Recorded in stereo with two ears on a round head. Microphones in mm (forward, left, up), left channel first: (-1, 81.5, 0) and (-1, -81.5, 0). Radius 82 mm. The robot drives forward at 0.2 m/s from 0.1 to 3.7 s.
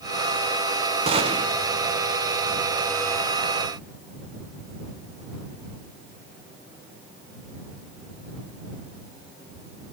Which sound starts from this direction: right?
A gunshot, at 1.1 s.